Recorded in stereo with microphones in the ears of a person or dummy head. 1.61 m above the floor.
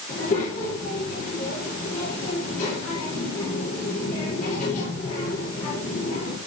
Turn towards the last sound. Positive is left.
turn(degrees=45)  # may be behind; listen again after turning